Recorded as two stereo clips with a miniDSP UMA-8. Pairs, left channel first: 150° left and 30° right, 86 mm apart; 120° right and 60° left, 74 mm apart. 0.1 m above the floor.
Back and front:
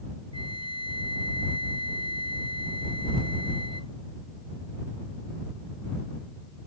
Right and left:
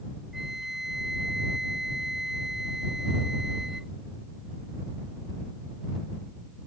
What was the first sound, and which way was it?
A flute, 25° right.